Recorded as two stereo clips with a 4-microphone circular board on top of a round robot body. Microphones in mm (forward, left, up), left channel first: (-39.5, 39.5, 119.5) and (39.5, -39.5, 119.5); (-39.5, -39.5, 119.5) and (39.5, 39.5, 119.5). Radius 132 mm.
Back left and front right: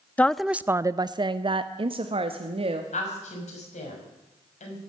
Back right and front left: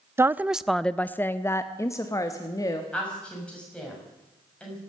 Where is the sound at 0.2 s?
80° left, 0.5 m; by 2.8 s 75° right, 1.4 m.